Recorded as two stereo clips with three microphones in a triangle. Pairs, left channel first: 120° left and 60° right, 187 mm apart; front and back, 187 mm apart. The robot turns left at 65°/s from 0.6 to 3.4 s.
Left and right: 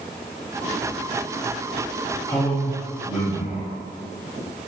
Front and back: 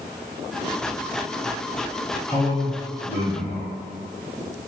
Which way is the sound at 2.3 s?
85° left.